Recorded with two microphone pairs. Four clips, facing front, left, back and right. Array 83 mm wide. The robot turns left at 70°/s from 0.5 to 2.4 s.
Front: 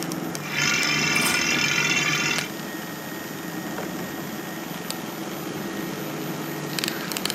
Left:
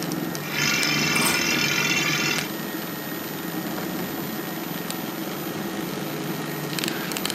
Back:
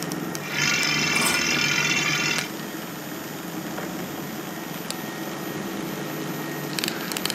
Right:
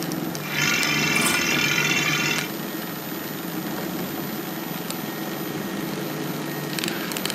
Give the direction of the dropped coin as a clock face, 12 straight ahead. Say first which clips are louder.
Right 1 dB, even; 7 o'clock.